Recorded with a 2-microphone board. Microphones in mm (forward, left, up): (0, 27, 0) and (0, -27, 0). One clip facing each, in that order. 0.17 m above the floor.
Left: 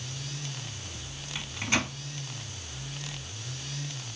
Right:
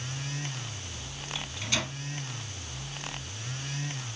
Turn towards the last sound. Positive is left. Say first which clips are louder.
# left 4 dB
turn(degrees=30)  # may be behind; listen again after turning